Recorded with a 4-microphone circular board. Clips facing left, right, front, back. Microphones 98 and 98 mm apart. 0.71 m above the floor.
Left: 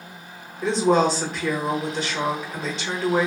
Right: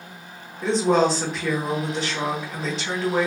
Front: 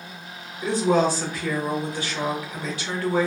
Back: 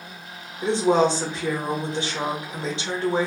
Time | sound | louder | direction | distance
0.6 | a woman speaking | even, back 1 dB | 175° right | 1.0 m